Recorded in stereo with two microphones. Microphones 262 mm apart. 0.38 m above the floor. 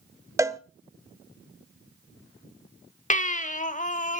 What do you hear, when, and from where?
0.4 s a cowbell: 10° right (ahead or behind), 0.7 m
3.1 s a baby crying: 30° left (ahead or behind), 0.8 m